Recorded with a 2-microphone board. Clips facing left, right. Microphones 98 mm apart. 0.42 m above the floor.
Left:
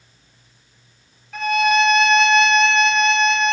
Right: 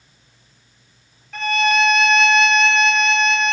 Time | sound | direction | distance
1.3 | a violin | 5° left (ahead or behind) | 1.8 m